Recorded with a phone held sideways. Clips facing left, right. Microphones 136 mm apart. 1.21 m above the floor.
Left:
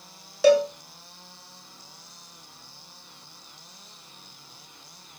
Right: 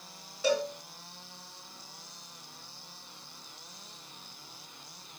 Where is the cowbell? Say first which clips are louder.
Left 11 dB; 85° left, 0.8 m.